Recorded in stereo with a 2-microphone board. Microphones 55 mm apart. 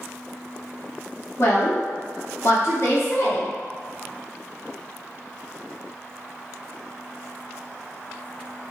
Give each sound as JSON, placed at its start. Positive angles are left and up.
{"t": 1.4, "sound": "a woman speaking", "side_deg": 55, "distance_m": 0.9}